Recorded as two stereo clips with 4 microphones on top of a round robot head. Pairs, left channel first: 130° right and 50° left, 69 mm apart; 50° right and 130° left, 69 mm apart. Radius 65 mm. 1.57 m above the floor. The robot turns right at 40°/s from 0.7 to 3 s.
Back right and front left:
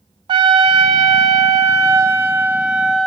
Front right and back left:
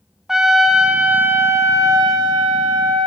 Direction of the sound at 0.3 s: 50° left.